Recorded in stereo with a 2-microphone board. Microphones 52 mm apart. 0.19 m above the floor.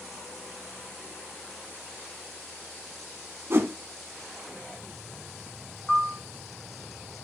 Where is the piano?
5° left (ahead or behind), 0.5 m.